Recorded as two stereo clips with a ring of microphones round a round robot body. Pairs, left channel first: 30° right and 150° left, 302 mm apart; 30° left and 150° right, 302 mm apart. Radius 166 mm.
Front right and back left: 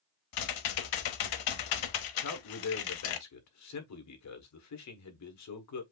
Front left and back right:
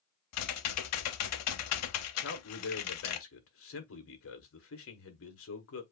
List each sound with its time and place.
0.3 s typing on a keyboard: 10° right, 0.7 m
2.2 s a man speaking: 10° right, 1.4 m